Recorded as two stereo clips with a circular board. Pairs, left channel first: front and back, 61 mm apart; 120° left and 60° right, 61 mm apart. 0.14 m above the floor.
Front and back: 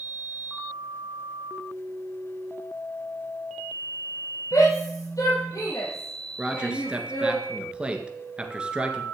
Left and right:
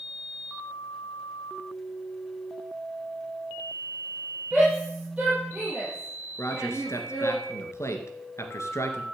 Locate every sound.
4.5 s a shout: 10° left, 4 m; by 7.4 s 5° left, 6 m
6.4 s a man speaking: 115° left, 2.5 m